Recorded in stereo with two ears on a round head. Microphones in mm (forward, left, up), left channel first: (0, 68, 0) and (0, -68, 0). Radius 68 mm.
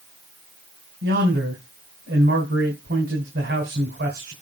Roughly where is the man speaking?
Right.